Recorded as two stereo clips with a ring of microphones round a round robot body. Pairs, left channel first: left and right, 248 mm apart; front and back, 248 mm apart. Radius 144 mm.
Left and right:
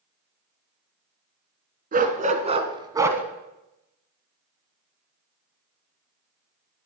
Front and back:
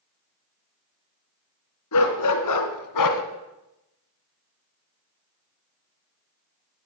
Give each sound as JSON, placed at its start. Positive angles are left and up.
{"t": 1.9, "sound": "a dog barking", "azimuth_deg": -35, "distance_m": 1.7}